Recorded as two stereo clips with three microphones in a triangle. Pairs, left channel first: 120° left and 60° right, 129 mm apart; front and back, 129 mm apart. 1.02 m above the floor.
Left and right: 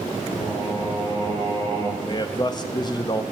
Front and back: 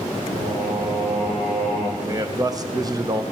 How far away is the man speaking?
About 0.7 m.